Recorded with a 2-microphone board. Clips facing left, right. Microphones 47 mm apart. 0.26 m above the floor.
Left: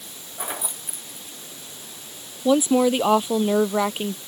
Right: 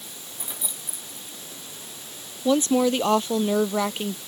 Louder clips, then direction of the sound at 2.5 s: Left 2 dB; 10° left (ahead or behind).